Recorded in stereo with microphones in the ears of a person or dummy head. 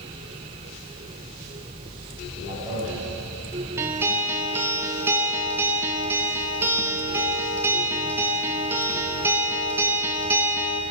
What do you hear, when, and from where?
2.3 s a man speaking: 25° right (ahead or behind), 4.5 m
3.8 s a guitar: 10° right (ahead or behind), 1.0 m